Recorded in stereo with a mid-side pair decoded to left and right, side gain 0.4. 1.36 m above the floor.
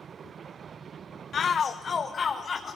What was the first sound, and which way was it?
A shout, 55° left.